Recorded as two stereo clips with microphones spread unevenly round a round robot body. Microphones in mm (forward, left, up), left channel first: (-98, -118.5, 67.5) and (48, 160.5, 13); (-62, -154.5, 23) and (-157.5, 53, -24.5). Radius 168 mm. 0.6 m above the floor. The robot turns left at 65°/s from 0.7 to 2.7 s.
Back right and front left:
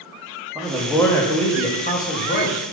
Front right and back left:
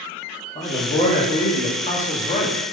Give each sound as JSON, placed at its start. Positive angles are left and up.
{"t": 0.6, "sound": "a man speaking", "azimuth_deg": 10, "distance_m": 1.1}